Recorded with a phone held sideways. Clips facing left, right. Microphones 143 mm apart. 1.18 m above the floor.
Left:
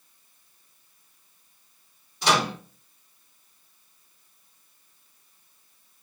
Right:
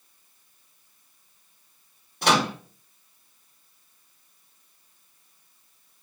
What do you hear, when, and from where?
2.2 s a microwave: 55° right (ahead or behind), 1.2 m